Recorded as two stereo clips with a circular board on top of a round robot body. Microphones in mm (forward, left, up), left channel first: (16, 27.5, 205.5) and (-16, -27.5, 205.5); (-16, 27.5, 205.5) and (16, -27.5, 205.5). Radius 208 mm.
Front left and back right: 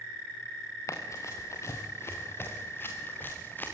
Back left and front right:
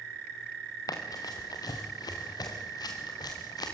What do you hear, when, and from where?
0.9 s running footsteps: 100° left, 3.5 m; by 3.7 s 120° left, 5 m